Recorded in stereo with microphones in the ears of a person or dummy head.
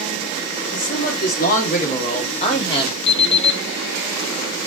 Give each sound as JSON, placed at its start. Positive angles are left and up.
{"t": 0.7, "sound": "a man speaking", "side_deg": 60, "distance_m": 4.5}
{"t": 3.1, "sound": "an alarm clock", "side_deg": 35, "distance_m": 3.0}